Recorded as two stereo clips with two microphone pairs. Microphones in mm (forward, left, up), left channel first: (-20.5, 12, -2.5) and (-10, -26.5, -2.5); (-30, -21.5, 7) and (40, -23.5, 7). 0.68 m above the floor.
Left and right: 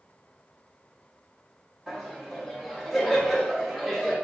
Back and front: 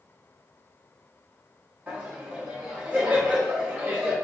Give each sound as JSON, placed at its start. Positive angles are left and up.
{"t": 1.9, "sound": "laughter", "azimuth_deg": 0, "distance_m": 0.8}